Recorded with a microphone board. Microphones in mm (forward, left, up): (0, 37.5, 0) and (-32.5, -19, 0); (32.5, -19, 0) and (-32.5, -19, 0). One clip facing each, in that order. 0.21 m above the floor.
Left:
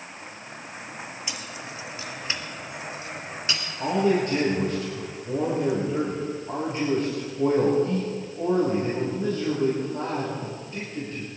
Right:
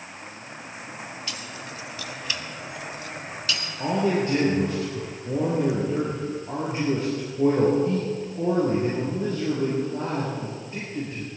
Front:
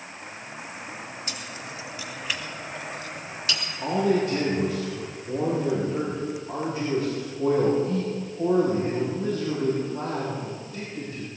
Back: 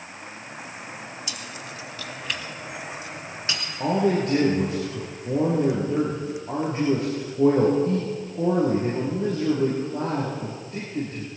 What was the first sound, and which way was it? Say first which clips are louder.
Keys jangling: even, even; 5° right.